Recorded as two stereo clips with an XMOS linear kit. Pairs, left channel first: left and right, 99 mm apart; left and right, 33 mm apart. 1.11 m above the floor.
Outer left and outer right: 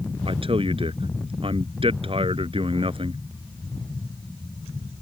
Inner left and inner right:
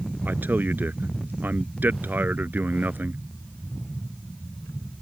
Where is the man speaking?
70° right (ahead or behind).